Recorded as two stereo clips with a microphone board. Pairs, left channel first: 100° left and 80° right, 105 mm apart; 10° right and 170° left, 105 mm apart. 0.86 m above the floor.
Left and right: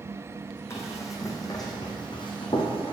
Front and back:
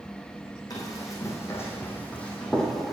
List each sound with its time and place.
0.7 s running footsteps: 40° left, 3 m; by 2.9 s 80° left, 2.5 m